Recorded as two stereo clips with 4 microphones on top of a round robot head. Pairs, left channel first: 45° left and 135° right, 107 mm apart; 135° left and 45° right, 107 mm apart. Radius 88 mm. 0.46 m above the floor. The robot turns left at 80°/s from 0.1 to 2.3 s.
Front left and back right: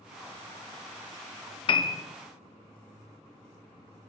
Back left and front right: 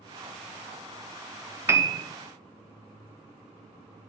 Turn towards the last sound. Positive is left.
turn(degrees=-30)